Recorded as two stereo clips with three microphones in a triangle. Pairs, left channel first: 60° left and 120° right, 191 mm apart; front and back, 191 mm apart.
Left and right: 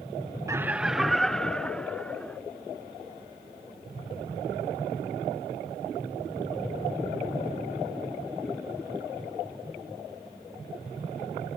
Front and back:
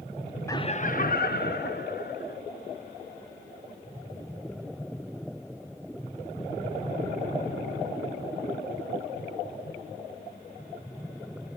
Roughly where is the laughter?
Ahead right.